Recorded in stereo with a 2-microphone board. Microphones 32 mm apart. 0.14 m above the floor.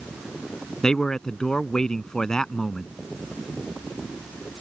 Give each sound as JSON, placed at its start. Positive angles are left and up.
{"t": 0.8, "sound": "a man speaking", "side_deg": 20}